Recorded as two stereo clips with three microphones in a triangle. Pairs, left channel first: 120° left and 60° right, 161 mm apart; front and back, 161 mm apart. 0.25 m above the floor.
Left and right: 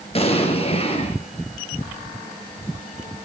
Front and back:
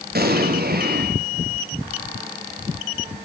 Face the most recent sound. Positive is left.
turn(degrees=170)